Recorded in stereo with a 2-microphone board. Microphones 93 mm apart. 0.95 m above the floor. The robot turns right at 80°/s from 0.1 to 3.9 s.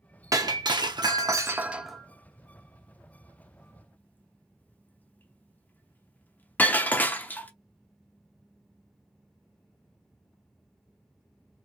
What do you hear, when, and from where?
0.3 s breaking glass: 35° right (ahead or behind), 0.6 m; by 7.5 s 20° left (ahead or behind), 0.6 m